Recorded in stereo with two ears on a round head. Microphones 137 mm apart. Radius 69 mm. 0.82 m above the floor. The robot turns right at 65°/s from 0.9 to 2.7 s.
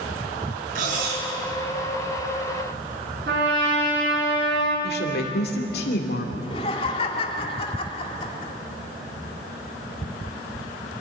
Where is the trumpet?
80° right, 8 m.